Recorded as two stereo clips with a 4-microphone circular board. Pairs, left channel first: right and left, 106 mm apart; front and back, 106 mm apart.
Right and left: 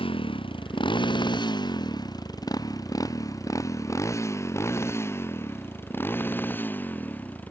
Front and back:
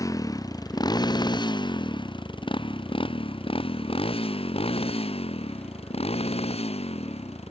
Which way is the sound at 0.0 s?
55° right.